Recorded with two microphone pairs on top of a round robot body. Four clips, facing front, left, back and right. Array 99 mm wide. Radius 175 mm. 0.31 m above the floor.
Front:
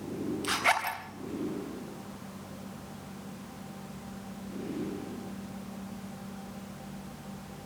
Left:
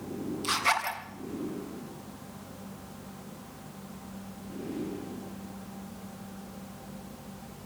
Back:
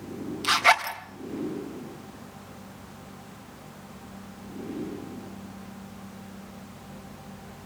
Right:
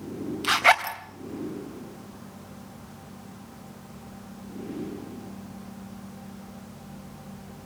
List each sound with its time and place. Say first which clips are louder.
0.4 s a zipper: right 8 dB, back 8 dB; 115° right, 3 m